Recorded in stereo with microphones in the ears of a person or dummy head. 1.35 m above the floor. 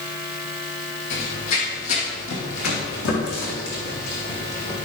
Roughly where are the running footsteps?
Left.